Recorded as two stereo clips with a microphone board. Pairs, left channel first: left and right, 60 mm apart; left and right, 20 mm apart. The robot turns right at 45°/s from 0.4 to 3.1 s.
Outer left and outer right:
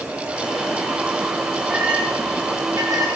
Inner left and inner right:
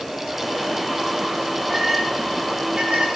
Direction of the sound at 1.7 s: 15° right (ahead or behind).